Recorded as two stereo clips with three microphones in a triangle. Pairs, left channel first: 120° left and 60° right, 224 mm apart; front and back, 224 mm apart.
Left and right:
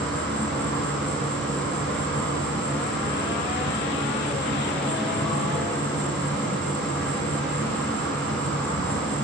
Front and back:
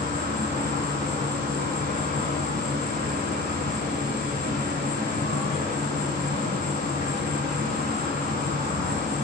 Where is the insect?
160° right, 1.1 m.